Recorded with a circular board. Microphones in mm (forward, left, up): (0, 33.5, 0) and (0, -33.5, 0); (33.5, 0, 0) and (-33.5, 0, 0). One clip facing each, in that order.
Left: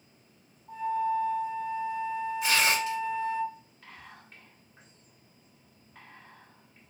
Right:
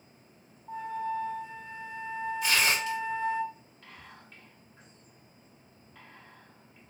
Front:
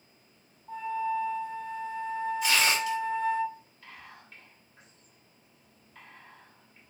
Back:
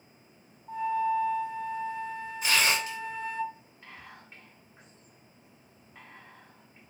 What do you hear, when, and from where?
0.7 s a flute: 115° right, 1.1 m
2.4 s tearing paper: 145° left, 1.9 m
3.8 s whispering: 145° left, 1.4 m